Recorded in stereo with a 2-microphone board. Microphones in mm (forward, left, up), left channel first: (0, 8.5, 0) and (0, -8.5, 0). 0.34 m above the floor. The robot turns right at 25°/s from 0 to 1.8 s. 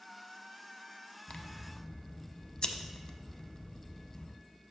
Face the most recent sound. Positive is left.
turn(degrees=55)  # may be behind; listen again after turning